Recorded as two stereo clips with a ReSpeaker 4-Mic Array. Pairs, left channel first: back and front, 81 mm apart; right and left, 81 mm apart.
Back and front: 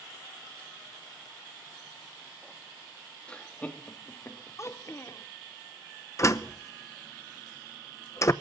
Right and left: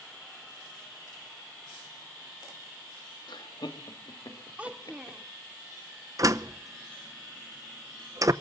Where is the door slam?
130° left, 0.8 m.